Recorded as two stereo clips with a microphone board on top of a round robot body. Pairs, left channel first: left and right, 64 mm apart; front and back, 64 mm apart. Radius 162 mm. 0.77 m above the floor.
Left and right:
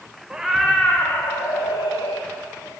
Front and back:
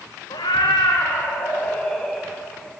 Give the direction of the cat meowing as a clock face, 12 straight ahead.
12 o'clock.